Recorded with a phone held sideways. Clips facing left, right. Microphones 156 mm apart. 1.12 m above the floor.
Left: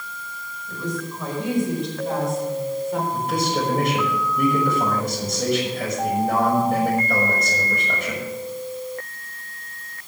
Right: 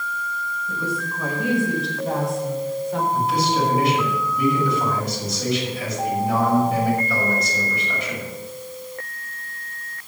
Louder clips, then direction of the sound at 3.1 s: Right 2 dB; 55° left (ahead or behind).